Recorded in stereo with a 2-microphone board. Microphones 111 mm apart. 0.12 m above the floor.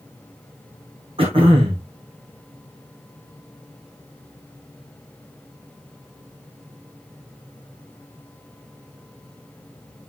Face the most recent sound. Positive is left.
turn(degrees=-55)  # may be behind; listen again after turning